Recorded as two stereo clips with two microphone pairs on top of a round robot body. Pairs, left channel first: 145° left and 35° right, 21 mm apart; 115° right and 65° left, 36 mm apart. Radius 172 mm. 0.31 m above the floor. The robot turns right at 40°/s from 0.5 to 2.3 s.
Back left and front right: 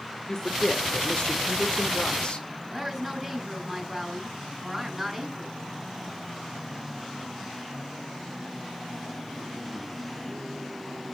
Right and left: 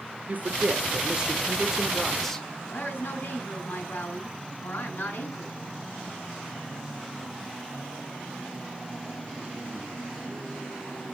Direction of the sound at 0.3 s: 100° left.